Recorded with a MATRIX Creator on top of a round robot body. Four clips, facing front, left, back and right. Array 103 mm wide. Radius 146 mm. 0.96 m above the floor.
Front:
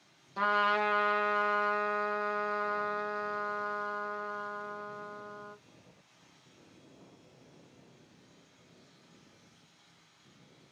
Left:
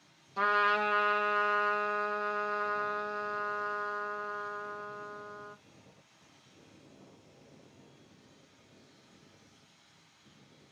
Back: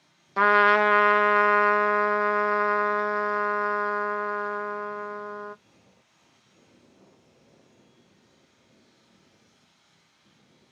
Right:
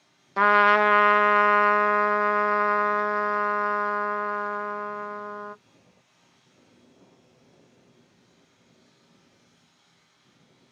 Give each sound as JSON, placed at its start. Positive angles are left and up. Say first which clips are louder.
{"t": 0.4, "sound": "a trumpet", "louder": "right 10 dB, back 9 dB", "azimuth_deg": -135, "distance_m": 0.6}